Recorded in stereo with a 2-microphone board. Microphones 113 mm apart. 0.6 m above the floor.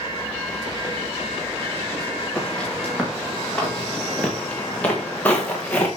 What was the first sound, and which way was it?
Footsteps, 10° left (ahead or behind).